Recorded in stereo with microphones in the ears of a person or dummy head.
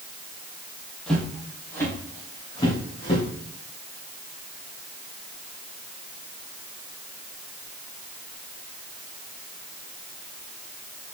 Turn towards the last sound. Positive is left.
turn(degrees=30)  # may be behind; listen again after turning